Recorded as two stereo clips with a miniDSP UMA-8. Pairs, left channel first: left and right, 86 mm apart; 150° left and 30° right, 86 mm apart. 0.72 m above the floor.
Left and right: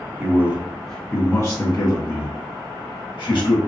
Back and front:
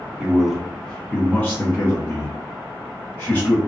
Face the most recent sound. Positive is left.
turn(degrees=90)